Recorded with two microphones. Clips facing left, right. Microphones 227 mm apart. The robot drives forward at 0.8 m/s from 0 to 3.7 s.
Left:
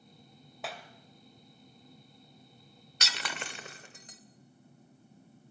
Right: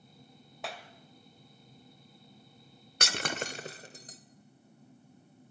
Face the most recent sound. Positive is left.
turn(degrees=-35)  # may be behind; listen again after turning